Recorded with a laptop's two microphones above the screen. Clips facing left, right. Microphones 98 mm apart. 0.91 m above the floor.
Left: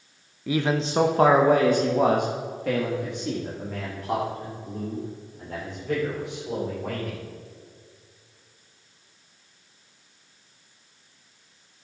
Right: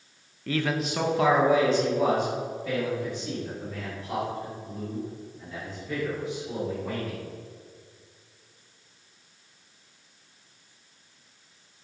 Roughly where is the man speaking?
Centre.